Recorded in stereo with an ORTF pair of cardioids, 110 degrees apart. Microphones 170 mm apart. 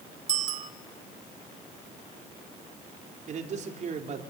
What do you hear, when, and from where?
0.3 s a bicycle bell: 45° right, 3 m
3.3 s a man speaking: 45° right, 4.5 m